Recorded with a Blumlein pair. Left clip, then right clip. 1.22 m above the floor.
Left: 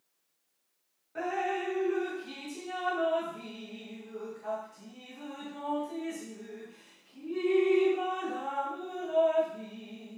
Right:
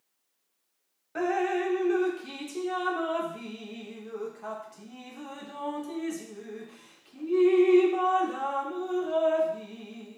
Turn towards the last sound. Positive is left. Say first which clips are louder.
# right 4 dB
turn(degrees=-65)